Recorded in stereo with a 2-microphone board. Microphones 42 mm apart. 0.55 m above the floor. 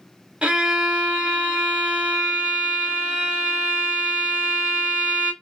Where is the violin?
25° right (ahead or behind), 1.1 m.